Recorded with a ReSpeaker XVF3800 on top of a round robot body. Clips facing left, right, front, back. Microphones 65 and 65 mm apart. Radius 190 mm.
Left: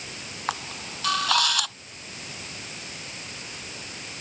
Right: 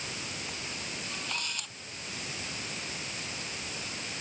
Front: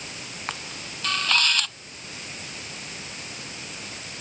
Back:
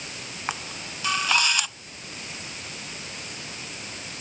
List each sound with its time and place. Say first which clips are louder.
0.5 s a camera shutter: left 7 dB, back 3 dB; 100° left